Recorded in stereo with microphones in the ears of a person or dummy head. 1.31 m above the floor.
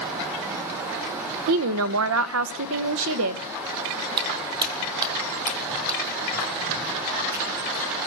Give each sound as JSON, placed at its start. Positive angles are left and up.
{"t": 1.5, "sound": "a woman speaking", "side_deg": -75, "distance_m": 0.7}
{"t": 4.2, "sound": "footsteps", "side_deg": -25, "distance_m": 2.0}